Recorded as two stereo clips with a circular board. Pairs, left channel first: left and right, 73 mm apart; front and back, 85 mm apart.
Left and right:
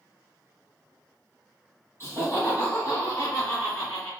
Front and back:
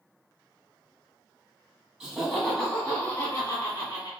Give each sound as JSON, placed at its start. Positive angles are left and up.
{"t": 2.0, "sound": "laughter", "azimuth_deg": 105, "distance_m": 1.3}